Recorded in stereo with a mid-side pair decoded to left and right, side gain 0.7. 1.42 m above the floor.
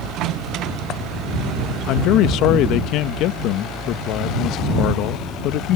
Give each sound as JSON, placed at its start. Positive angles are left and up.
{"t": 1.9, "sound": "a man speaking", "azimuth_deg": 60}